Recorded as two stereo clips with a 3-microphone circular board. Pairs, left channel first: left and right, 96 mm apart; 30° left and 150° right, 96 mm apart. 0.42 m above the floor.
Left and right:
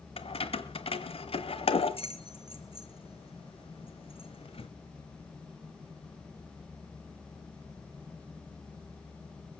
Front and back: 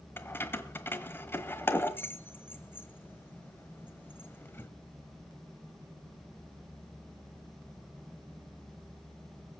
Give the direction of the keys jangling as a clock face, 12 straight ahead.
9 o'clock.